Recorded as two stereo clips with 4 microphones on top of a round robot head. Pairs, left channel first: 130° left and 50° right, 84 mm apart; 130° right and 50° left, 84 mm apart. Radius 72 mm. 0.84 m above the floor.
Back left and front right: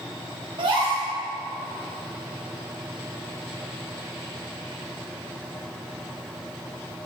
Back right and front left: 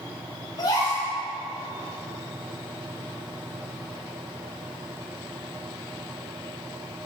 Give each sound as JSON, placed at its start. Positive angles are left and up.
{"t": 0.6, "sound": "a gasp", "azimuth_deg": -80, "distance_m": 5.0}